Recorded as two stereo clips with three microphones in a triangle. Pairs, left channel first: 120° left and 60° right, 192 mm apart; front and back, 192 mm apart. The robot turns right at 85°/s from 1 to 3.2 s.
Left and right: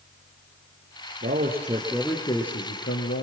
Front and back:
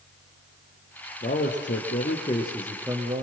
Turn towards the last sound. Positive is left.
turn(degrees=130)